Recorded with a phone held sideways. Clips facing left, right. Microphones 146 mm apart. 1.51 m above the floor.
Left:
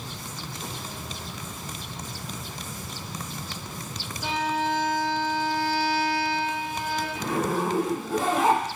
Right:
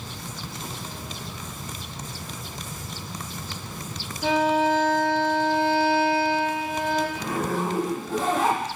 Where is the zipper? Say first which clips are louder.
Left 1 dB; 10° left (ahead or behind), 1.3 m.